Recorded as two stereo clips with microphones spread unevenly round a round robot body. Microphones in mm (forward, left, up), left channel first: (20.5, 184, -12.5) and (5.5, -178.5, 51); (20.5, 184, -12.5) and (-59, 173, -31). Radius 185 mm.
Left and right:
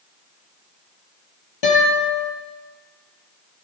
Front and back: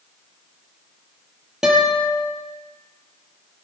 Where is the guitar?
105° left, 5.5 m.